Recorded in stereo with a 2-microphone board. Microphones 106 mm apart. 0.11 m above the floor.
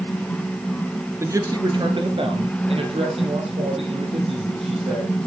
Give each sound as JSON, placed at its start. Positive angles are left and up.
{"t": 1.2, "sound": "a man speaking", "side_deg": -25, "distance_m": 1.5}